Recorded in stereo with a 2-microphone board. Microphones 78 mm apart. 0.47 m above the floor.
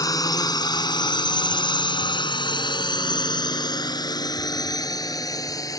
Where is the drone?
50° left (ahead or behind); by 5.8 s 45° left (ahead or behind).